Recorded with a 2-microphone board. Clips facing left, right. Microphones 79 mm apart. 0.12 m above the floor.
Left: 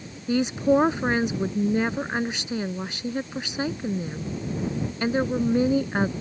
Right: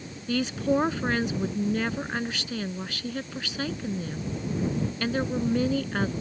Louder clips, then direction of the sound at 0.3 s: Left 5 dB; 20° left (ahead or behind).